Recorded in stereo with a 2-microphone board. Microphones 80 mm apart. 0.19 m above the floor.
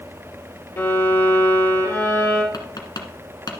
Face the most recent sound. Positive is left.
turn(degrees=55)  # may be behind; listen again after turning